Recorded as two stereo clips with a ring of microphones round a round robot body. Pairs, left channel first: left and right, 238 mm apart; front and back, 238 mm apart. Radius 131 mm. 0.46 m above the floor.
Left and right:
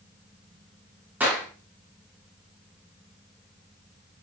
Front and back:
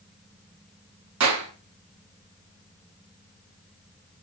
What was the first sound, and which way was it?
A clap, 175° right.